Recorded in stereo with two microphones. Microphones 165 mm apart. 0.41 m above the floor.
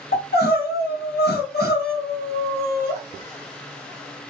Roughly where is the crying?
Left.